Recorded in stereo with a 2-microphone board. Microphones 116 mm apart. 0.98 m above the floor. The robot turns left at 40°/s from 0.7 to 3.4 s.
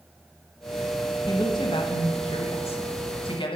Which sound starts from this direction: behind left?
A woman speaking, at 1.3 s.